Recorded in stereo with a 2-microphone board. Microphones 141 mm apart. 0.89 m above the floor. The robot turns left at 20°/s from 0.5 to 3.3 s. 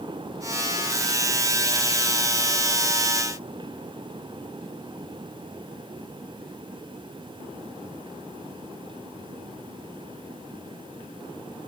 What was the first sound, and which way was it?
Only background noise.